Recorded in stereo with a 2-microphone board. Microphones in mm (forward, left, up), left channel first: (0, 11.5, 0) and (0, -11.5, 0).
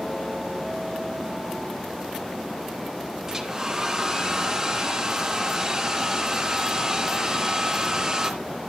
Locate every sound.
3.3 s a hair dryer: 20° right (ahead or behind), 2.5 m